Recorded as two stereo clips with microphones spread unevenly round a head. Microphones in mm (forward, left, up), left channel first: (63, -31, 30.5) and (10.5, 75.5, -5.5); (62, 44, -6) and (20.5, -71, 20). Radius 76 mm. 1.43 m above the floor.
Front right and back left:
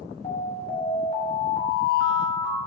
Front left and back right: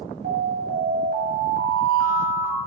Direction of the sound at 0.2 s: 120° right.